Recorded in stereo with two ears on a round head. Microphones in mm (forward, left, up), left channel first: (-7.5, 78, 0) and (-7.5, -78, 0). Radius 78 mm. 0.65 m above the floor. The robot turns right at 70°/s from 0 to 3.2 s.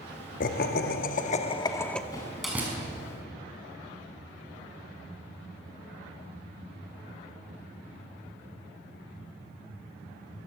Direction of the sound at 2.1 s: 25° left (ahead or behind).